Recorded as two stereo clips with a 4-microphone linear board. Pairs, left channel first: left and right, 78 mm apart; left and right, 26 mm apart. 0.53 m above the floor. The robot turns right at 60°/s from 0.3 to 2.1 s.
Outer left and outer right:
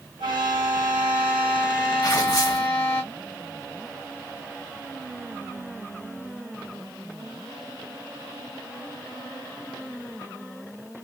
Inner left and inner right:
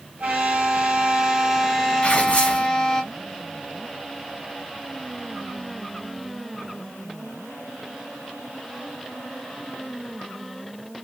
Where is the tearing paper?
50° left (ahead or behind), 1.5 m.